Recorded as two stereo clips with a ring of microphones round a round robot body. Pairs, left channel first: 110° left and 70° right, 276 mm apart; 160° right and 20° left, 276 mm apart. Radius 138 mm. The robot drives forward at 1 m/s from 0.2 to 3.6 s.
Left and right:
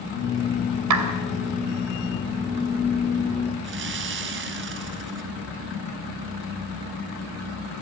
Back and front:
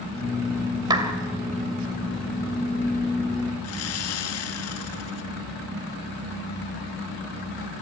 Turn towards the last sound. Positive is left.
turn(degrees=-120)